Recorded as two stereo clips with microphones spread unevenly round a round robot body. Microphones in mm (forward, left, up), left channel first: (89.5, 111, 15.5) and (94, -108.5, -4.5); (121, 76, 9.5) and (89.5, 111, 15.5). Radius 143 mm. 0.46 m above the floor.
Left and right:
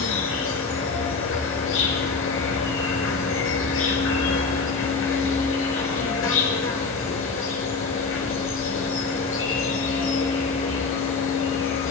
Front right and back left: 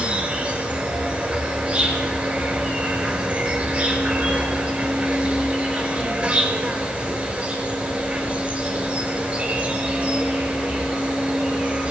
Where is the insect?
70° left, 6 m.